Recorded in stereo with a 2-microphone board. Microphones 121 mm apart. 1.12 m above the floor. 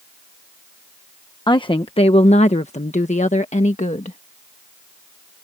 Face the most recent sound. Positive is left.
turn(degrees=70)  # may be behind; listen again after turning